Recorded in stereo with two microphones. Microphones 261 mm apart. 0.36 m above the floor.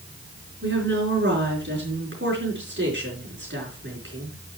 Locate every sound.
0.6 s a woman speaking: 50° right (ahead or behind), 4.5 m